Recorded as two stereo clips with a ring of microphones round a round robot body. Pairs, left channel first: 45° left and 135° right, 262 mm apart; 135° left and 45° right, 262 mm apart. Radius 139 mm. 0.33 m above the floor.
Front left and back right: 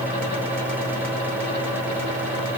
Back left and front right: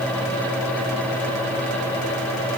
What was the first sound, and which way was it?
Only background noise.